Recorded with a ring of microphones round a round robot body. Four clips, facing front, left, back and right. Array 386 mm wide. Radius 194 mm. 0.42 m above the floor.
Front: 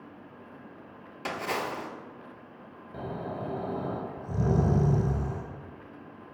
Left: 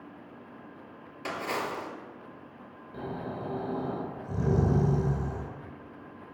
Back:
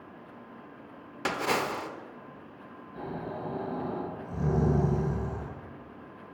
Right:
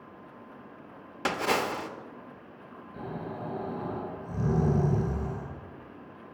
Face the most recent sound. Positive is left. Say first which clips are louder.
# left 1 dB, front 1 dB
turn(degrees=20)